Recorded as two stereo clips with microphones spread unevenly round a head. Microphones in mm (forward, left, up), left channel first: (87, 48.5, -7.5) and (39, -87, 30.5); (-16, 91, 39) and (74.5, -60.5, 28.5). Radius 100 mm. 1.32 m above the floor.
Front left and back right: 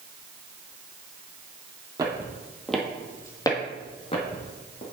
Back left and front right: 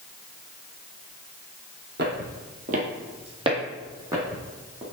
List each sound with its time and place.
2.0 s footsteps: 80° right, 1.8 m; by 4.8 s 20° left, 3 m